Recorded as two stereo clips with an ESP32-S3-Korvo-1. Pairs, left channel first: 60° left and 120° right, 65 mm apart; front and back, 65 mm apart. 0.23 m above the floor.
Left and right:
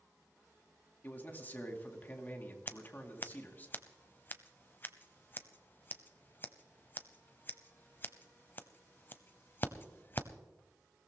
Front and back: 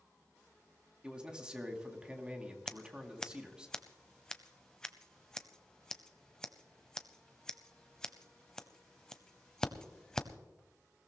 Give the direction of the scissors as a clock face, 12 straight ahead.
10 o'clock.